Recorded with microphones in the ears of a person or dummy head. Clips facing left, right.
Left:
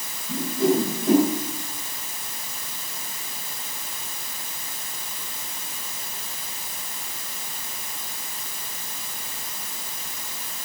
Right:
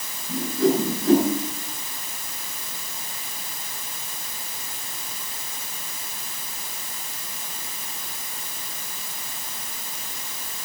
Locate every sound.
0.3 s a whoosh: 5° right (ahead or behind), 9.5 m